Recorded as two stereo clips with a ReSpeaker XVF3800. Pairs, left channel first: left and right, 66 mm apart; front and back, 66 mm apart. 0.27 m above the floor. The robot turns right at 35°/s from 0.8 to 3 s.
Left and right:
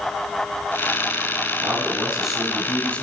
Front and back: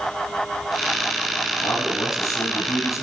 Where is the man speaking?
30° right, 4.5 m; by 3.0 s 20° left, 4.5 m.